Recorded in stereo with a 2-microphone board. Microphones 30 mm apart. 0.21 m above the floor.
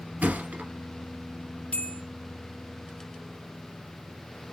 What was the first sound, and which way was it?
A thud, 65° right (ahead or behind).